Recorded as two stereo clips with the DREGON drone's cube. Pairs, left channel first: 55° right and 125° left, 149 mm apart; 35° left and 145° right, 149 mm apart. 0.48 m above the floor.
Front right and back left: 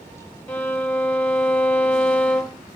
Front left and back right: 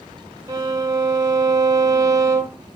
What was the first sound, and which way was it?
A violin, 115° right.